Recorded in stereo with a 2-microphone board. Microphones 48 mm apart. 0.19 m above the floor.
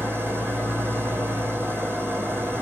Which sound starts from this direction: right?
An engine running, at 0.0 s.